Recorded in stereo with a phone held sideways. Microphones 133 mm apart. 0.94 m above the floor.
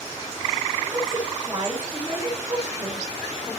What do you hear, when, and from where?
0.9 s a woman speaking: 30° right (ahead or behind), 3.5 m